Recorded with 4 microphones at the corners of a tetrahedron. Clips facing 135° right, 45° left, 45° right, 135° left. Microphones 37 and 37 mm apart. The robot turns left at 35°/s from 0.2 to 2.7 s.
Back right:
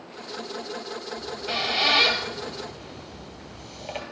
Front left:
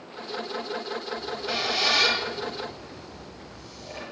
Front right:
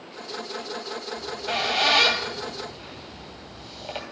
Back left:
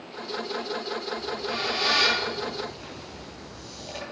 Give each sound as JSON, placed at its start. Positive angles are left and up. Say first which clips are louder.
{"t": 1.2, "sound": "a squeak", "louder": "back right 3 dB, front right 2 dB", "azimuth_deg": -55, "distance_m": 2.5}